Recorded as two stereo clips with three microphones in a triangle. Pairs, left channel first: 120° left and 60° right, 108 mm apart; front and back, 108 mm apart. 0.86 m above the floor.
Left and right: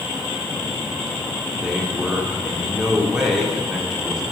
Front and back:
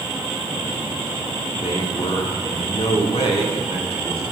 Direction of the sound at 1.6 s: 25° left.